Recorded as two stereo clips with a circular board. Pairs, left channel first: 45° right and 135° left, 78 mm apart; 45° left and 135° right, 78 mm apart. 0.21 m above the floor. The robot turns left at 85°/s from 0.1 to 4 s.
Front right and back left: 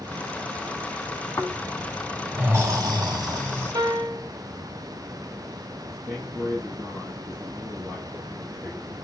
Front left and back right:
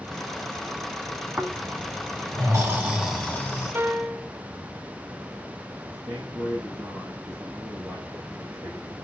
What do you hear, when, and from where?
1.4 s snoring: 75° right, 2 m; by 3.7 s 80° left, 2 m
3.8 s a piano: 165° left, 0.8 m; by 4.3 s 145° left, 0.8 m
5.9 s a man speaking: straight behind, 4.5 m